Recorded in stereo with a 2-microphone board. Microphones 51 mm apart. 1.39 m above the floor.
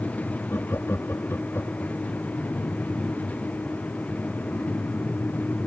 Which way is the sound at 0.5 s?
50° left (ahead or behind).